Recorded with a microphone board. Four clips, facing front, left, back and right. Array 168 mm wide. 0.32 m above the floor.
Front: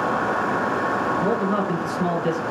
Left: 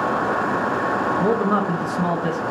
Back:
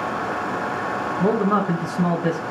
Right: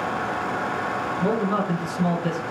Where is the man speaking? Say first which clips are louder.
Left 2 dB, back 2 dB; 135° left, 3 m.